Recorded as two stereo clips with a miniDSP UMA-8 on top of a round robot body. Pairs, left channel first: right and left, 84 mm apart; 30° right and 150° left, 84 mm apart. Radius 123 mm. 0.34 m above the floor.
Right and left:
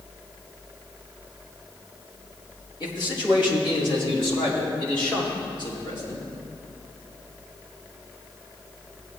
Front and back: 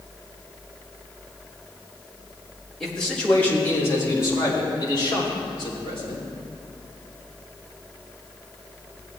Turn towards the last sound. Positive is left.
turn(degrees=-50)